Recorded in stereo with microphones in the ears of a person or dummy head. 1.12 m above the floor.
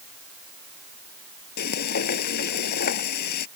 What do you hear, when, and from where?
1.6 s frying: 60° left (ahead or behind)